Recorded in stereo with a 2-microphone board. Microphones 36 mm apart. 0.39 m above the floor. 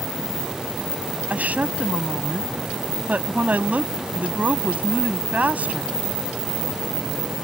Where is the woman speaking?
45° right (ahead or behind).